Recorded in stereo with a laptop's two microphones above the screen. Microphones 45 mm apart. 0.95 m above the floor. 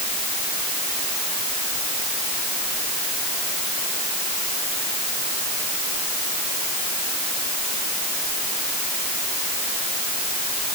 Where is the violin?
No violin in this recording.